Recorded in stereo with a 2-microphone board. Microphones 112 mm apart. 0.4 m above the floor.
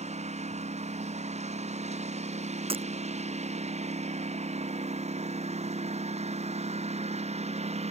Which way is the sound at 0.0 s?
90° right.